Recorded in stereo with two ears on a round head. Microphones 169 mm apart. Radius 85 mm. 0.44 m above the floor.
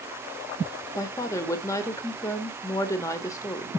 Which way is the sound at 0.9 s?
15° left (ahead or behind).